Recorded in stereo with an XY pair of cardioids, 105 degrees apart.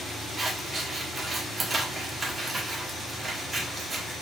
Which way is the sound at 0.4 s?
30° right.